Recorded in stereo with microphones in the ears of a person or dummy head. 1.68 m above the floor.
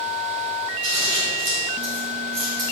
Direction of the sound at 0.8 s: 45° right (ahead or behind).